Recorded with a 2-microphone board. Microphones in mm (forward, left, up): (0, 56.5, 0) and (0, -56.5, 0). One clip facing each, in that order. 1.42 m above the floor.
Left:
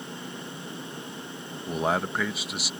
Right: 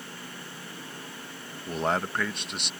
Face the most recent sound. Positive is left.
turn(degrees=5)  # may be behind; listen again after turning